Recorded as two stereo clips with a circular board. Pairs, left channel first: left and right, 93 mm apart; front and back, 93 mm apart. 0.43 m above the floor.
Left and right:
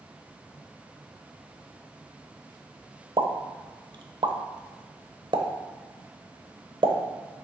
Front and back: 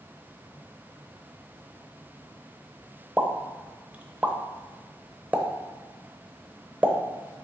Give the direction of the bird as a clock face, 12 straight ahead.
I don't hear a bird.